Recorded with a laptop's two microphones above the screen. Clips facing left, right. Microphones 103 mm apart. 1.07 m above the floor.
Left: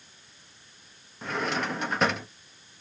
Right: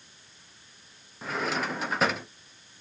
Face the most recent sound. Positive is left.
turn(degrees=0)  # may be behind; listen again after turning